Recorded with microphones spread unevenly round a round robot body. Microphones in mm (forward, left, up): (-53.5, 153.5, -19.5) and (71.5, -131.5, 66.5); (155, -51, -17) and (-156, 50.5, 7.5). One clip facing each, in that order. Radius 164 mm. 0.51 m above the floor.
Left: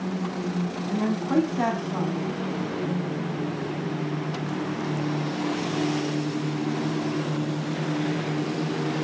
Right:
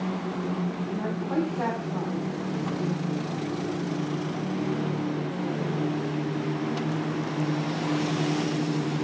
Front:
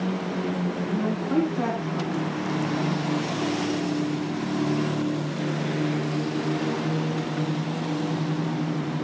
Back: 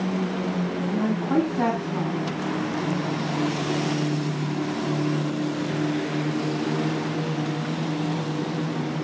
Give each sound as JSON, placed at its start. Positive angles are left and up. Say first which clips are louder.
{"t": 0.9, "sound": "a woman speaking", "louder": "left 5 dB, back 2 dB", "azimuth_deg": 90, "distance_m": 3.5}